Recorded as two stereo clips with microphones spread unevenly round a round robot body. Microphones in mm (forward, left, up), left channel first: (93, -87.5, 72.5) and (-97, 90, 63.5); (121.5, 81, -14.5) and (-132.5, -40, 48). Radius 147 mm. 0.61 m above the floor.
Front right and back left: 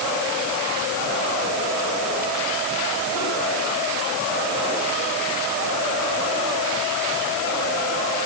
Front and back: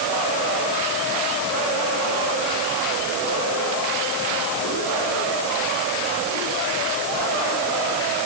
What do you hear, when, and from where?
Only background noise.